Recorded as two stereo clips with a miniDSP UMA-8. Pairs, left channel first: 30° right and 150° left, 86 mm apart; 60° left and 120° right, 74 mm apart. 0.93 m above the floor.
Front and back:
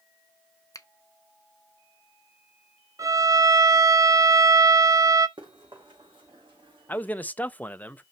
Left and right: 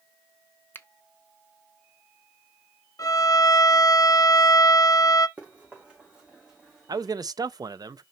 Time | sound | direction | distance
0.7 | a finger snap | 5° left | 0.7 m
3.0 | a violin | 100° left | 0.6 m
5.4 | running footsteps | 170° left | 4.5 m
6.9 | a man speaking | 100° right | 0.5 m